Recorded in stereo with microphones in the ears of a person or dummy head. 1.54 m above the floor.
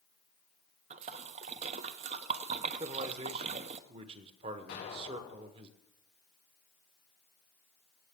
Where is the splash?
35° right (ahead or behind), 0.6 m.